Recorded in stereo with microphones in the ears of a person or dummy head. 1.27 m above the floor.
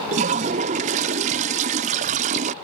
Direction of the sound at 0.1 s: 35° right (ahead or behind).